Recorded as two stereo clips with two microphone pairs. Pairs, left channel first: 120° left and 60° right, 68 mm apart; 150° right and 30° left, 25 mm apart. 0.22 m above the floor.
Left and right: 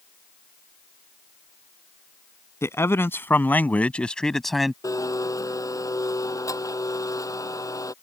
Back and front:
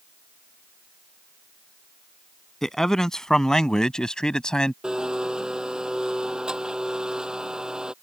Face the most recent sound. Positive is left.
turn(degrees=85)